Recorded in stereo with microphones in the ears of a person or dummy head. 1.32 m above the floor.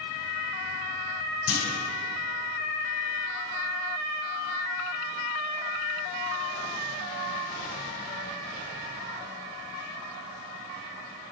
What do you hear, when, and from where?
1.5 s a clunk: 65° left (ahead or behind), 3.5 m